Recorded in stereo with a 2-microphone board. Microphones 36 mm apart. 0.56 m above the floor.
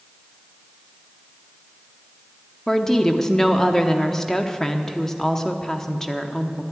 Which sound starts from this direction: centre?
A woman speaking, at 2.7 s.